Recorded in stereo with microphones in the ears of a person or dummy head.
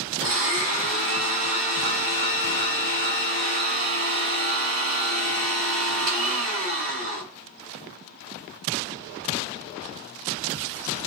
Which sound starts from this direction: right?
A blender, at 0.2 s.